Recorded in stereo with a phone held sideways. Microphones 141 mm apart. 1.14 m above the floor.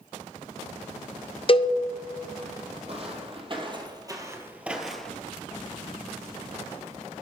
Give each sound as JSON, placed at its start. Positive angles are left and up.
{"t": 1.5, "sound": "a cowbell", "side_deg": 40, "distance_m": 0.5}
{"t": 2.9, "sound": "footsteps", "side_deg": -45, "distance_m": 1.9}